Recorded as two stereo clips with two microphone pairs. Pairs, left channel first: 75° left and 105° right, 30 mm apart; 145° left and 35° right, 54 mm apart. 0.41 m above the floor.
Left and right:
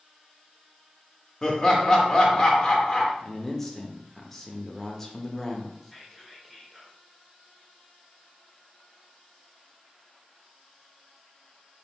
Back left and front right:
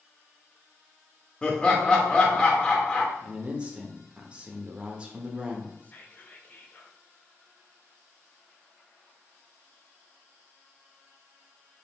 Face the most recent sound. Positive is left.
turn(degrees=170)